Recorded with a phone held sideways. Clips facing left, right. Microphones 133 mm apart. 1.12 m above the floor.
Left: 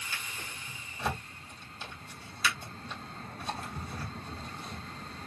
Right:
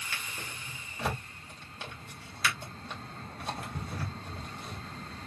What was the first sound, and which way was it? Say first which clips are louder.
A drawer: right 2 dB; 65° right (ahead or behind).